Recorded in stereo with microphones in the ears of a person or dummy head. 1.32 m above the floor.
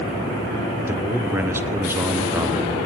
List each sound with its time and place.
0.9 s a man speaking: 15° right (ahead or behind), 0.8 m